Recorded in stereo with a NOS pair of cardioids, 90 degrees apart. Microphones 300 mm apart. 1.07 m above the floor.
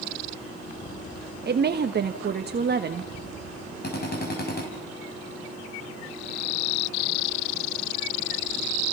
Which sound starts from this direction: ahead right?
A woman speaking, at 1.4 s.